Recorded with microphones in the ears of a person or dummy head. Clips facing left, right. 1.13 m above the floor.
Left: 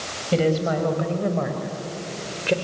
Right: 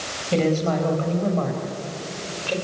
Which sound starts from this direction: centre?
A woman speaking, at 0.3 s.